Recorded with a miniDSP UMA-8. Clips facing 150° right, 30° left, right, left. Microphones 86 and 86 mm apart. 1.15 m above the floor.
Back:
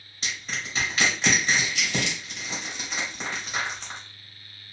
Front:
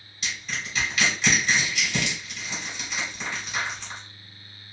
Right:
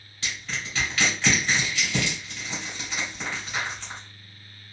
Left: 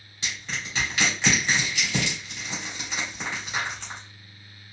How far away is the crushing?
About 1.7 m.